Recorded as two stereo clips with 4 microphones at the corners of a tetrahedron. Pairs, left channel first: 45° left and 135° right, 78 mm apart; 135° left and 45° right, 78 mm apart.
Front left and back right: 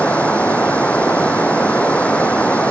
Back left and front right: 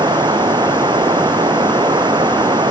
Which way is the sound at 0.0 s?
30° right.